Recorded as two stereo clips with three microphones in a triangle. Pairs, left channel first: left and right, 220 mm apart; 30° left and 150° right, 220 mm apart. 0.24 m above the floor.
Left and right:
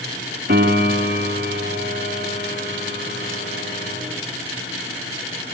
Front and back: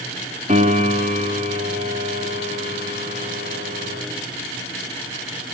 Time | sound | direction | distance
0.5 | a piano | 105° right | 2 m